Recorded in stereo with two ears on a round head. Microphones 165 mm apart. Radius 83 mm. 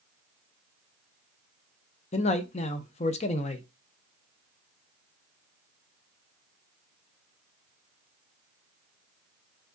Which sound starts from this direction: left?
A man speaking, at 2.1 s.